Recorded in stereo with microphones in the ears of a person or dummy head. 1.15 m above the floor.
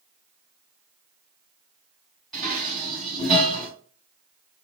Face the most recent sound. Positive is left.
turn(degrees=0)  # may be behind; listen again after turning